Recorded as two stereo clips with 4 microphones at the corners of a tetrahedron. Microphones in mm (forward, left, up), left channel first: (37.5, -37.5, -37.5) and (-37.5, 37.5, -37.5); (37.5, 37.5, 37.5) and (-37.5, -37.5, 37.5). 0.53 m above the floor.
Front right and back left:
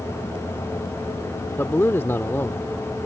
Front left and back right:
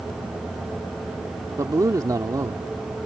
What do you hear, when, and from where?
1.6 s a man speaking: 100° right